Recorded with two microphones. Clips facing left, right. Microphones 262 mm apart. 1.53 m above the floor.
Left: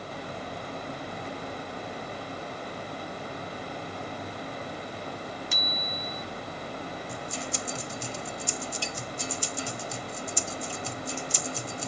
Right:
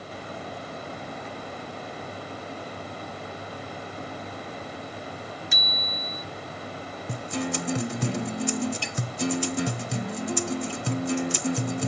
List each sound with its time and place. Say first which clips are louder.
5.5 s a bicycle bell: even; 20° right (ahead or behind)
7.1 s a guitar: right 7 dB; 65° right (ahead or behind)